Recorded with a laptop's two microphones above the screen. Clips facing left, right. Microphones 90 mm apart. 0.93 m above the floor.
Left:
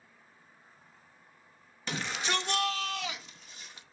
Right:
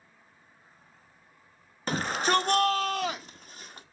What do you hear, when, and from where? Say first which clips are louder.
1.9 s a shout: right 7 dB; 45° right (ahead or behind), 1.0 m; by 3.8 s 50° right (ahead or behind), 2 m